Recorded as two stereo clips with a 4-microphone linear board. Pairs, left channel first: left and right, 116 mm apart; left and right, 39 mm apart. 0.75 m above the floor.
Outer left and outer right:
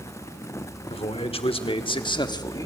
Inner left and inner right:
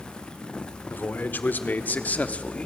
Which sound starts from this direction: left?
A man speaking, at 0.9 s.